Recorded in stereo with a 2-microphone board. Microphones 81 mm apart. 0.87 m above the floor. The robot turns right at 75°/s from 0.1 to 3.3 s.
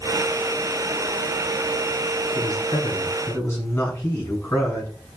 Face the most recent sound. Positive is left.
turn(degrees=155)